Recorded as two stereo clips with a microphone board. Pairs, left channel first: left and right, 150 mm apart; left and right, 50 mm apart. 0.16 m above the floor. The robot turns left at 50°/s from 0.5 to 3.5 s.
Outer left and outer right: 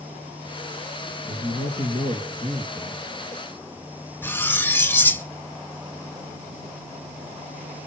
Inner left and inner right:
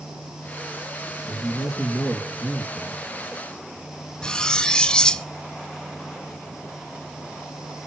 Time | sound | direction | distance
1.3 | a man speaking | 60° left | 4.5 m
4.2 | cutlery clinking | 15° left (ahead or behind) | 0.6 m